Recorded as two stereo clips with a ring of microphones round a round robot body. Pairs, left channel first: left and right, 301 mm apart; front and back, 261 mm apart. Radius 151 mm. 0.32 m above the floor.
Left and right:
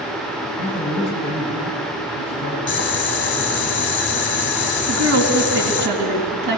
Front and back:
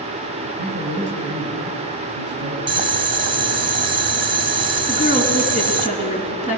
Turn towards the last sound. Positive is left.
turn(degrees=-110)